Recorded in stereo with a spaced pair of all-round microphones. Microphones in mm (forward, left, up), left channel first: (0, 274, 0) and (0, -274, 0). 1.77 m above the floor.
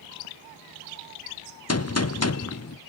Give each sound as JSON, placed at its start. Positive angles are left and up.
{"t": 1.7, "sound": "a gunshot", "side_deg": 30, "distance_m": 0.7}